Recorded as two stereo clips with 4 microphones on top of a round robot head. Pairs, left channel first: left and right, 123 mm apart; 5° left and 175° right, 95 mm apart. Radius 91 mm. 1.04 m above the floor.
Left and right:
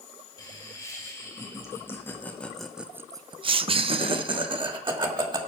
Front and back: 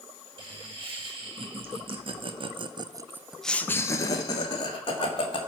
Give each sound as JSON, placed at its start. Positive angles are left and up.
{"t": 0.4, "sound": "laughter", "azimuth_deg": 155, "distance_m": 2.5}